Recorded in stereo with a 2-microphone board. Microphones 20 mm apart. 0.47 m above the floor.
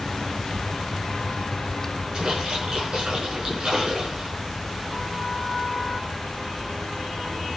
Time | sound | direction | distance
2.1 | a splash | 55° right (ahead or behind) | 6.5 m